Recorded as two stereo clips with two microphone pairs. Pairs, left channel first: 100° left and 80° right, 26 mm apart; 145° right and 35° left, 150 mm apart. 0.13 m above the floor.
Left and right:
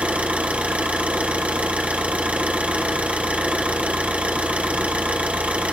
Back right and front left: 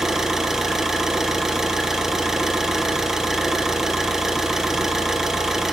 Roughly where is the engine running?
Ahead right.